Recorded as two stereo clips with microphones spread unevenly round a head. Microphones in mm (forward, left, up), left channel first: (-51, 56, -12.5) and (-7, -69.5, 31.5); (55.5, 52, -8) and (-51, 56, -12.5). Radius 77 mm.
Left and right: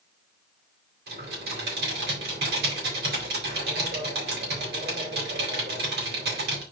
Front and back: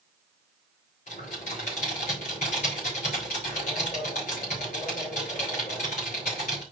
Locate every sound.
1.1 s typing on a keyboard: 45° right, 3.5 m